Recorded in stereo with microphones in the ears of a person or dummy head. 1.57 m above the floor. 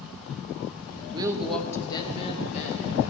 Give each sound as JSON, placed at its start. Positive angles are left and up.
{"t": 1.1, "sound": "a woman speaking", "side_deg": -20, "distance_m": 0.8}